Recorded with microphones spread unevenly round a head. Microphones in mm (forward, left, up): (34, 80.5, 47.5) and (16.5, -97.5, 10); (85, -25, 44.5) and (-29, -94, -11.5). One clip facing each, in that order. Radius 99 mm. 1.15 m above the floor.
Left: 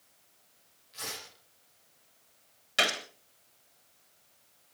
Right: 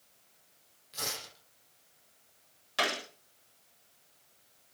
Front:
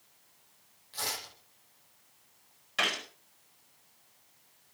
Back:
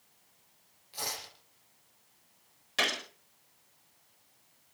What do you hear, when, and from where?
0.9 s tearing paper: 70° right, 8 m
2.8 s a gunshot: 155° left, 4 m